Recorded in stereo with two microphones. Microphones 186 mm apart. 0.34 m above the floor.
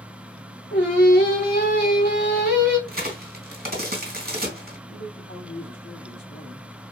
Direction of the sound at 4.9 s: 55° left (ahead or behind).